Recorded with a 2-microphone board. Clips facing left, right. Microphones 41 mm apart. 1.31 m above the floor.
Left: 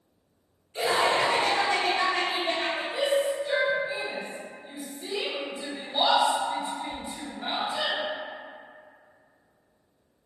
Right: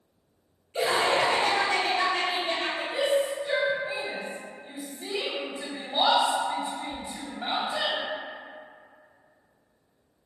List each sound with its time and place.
0.7 s laughter: 60° right (ahead or behind), 1.1 m; by 2.8 s 30° left (ahead or behind), 1.3 m
2.9 s a shout: 45° right (ahead or behind), 1.3 m